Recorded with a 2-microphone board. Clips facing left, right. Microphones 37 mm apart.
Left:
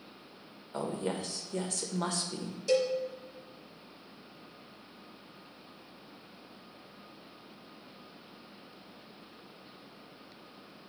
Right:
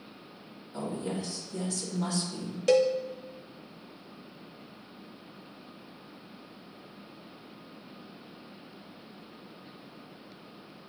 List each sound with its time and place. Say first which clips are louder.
0.7 s a woman speaking: even; 50° left (ahead or behind), 1.1 m
2.7 s a cowbell: right 5 dB; 65° right (ahead or behind), 0.8 m